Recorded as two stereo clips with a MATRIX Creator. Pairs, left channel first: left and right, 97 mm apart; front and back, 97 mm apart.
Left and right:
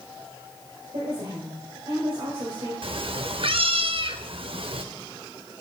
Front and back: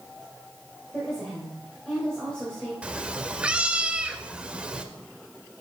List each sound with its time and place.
0.9 s a woman speaking: 80° right, 2 m
2.8 s a cat meowing: 105° right, 0.5 m